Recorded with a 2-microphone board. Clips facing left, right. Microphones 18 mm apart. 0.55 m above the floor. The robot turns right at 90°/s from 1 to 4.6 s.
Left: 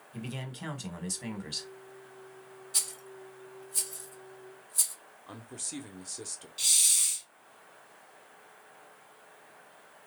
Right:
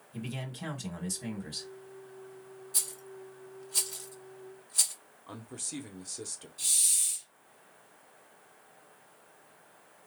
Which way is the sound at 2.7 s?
25° left (ahead or behind).